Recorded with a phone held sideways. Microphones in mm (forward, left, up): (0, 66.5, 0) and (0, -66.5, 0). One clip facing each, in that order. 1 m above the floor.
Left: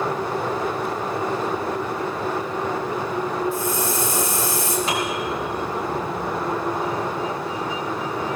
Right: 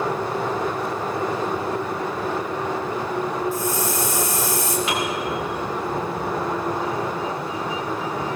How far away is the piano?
About 4.5 m.